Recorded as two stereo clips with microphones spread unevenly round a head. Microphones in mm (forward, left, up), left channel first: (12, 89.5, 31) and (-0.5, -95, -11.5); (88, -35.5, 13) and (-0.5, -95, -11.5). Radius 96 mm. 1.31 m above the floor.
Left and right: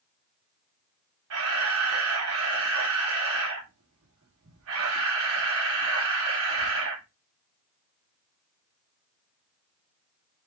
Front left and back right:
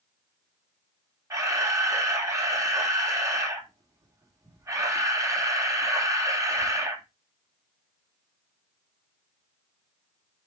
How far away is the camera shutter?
About 3 m.